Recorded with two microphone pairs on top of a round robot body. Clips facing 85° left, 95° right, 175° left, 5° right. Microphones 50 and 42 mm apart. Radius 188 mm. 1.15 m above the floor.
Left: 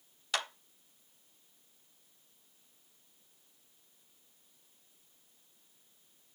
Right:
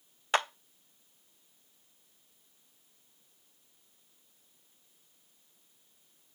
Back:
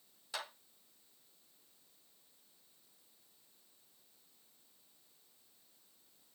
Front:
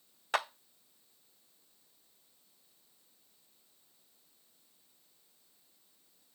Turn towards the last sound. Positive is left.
turn(degrees=-40)